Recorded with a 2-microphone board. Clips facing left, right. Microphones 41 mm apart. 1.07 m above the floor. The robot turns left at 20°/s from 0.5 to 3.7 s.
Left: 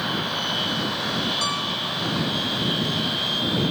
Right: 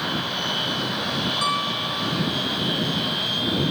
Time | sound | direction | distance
1.4 | a piano | 15° right (ahead or behind) | ?